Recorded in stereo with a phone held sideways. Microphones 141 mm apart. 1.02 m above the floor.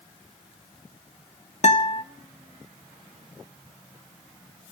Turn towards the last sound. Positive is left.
turn(degrees=55)  # may be behind; listen again after turning